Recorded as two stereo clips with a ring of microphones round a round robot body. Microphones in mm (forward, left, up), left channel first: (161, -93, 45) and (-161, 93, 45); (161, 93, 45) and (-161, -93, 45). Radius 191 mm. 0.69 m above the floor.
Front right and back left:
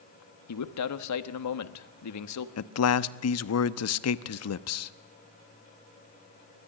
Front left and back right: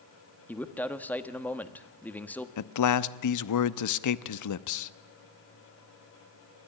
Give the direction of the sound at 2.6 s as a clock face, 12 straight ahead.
12 o'clock.